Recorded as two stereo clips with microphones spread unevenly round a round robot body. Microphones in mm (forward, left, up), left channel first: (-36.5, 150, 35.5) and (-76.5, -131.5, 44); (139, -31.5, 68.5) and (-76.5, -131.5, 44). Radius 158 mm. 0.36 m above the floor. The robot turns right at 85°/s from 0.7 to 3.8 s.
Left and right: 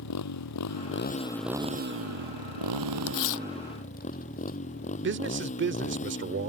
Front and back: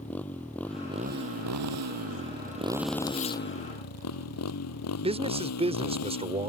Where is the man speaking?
115° right.